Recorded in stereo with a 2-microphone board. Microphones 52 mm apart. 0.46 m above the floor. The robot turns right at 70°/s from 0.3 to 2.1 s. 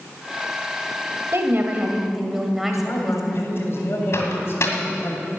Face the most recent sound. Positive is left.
turn(degrees=55)  # may be behind; listen again after turning